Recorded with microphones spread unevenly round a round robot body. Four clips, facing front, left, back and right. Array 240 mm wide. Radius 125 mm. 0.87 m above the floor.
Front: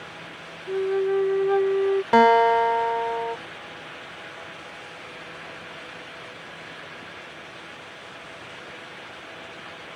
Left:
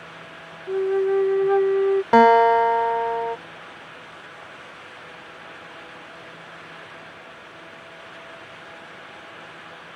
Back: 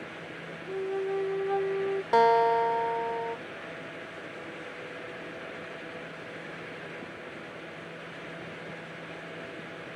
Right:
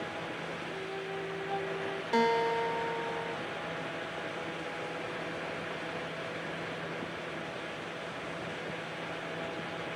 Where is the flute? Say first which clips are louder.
Left 23 dB, front 8 dB; 65° left.